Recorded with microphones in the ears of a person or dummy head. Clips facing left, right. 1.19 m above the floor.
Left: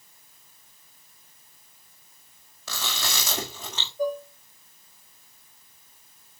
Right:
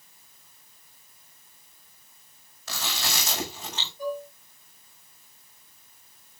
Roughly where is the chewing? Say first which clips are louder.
Even; left.